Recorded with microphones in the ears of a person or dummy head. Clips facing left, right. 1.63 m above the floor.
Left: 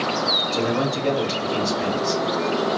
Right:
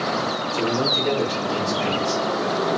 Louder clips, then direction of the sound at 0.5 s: Left 1 dB; 60° left (ahead or behind).